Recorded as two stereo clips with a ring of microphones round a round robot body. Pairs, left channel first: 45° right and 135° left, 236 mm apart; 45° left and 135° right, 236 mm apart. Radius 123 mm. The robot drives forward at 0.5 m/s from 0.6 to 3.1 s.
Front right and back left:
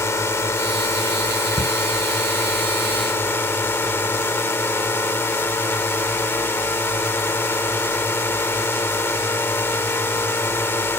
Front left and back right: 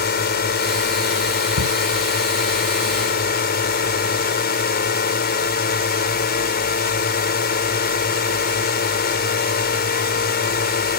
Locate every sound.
0.0 s a drone: 30° left
1.6 s a shout: 150° right; by 1.8 s 155° right